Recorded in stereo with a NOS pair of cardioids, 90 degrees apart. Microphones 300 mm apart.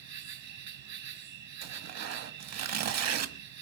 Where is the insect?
65° right, 3 m.